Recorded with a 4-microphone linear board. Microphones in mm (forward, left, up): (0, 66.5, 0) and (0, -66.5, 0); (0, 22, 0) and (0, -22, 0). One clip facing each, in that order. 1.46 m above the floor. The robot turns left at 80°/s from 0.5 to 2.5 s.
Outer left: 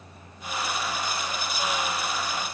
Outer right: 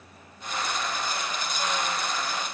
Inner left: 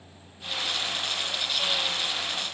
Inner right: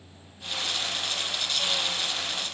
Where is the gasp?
No gasp in this recording.